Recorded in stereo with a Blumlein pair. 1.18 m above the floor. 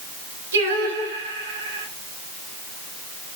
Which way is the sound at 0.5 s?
65° right.